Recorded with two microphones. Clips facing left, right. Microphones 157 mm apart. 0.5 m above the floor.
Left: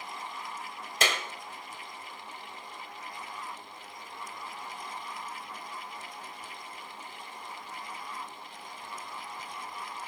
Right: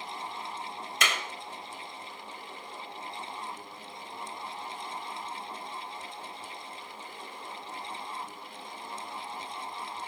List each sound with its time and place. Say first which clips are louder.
1.0 s a clap: left 2 dB; 35° left (ahead or behind), 1.5 m